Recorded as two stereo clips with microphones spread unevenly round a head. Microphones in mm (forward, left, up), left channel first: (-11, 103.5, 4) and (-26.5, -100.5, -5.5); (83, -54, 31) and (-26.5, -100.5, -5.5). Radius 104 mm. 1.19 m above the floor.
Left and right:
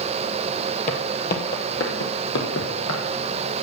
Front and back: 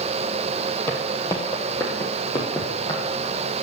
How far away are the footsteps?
About 1.5 m.